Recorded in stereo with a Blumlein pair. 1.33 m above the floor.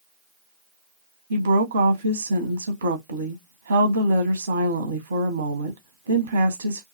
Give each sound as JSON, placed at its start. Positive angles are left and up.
{"t": 1.3, "sound": "a woman speaking", "azimuth_deg": -70, "distance_m": 0.8}